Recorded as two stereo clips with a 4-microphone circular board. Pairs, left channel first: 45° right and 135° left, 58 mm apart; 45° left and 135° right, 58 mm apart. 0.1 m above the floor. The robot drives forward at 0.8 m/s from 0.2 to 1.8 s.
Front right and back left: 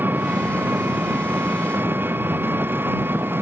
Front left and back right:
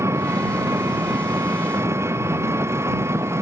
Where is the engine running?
170° right; by 3.4 s 175° right.